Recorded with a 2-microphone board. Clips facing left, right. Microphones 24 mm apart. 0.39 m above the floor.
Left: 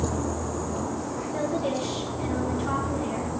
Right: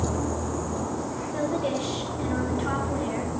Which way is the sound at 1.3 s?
10° right (ahead or behind).